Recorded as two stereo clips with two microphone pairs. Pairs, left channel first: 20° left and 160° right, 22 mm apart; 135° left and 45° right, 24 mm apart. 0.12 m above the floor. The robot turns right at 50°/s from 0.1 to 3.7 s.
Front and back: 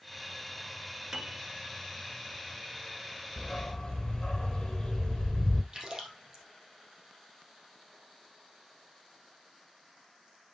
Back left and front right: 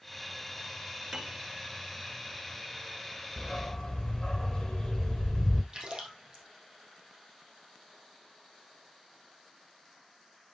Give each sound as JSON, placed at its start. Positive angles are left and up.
{"t": 1.1, "sound": "a piano", "azimuth_deg": -120, "distance_m": 1.8}
{"t": 3.4, "sound": "a dog barking", "azimuth_deg": 55, "distance_m": 1.2}
{"t": 5.7, "sound": "a splash", "azimuth_deg": -100, "distance_m": 3.5}